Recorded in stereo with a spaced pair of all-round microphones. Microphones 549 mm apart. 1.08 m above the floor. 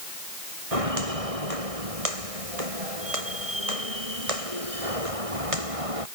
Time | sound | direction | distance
0.7 | footsteps | 85° right | ?